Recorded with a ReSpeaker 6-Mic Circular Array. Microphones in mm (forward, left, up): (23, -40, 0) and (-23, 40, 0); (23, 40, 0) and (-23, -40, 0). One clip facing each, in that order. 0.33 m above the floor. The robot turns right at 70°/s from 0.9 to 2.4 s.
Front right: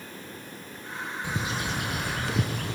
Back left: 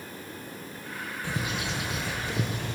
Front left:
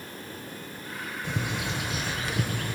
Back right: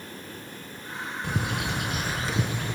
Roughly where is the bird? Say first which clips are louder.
Front right 1 dB, back right 2 dB; behind right.